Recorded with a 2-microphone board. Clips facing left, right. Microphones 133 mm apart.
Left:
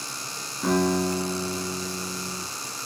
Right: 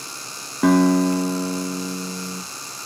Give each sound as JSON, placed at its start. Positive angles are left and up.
{"t": 0.6, "sound": "a guitar", "side_deg": -65, "distance_m": 2.5}